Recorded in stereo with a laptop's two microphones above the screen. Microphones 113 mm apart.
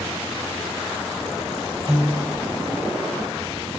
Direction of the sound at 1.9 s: 30° right (ahead or behind).